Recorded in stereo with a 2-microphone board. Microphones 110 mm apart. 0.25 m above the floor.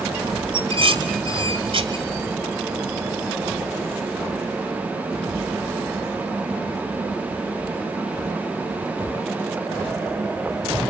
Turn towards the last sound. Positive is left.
turn(degrees=-55)  # may be behind; listen again after turning